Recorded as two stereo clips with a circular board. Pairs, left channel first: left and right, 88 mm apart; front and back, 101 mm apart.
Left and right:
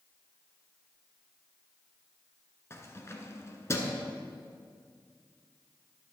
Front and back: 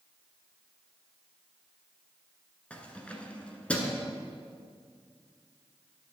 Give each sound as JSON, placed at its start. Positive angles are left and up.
{"t": 2.7, "sound": "keys jangling", "azimuth_deg": 65, "distance_m": 1.1}